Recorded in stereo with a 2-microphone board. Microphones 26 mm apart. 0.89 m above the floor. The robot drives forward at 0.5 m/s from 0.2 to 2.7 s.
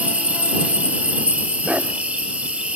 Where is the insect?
55° right (ahead or behind), 4.5 m; by 2.8 s 45° right (ahead or behind), 5.5 m.